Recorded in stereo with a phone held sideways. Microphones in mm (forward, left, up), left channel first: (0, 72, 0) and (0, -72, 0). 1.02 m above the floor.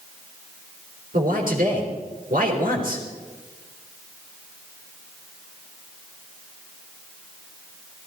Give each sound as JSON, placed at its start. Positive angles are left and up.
{"t": 1.1, "sound": "a man speaking", "side_deg": -75, "distance_m": 4.0}